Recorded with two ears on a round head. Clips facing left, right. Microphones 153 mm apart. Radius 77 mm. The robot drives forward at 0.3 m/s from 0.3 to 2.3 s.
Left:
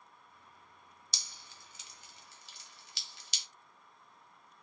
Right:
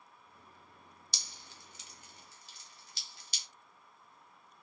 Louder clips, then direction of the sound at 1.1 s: Even; 75° left (ahead or behind).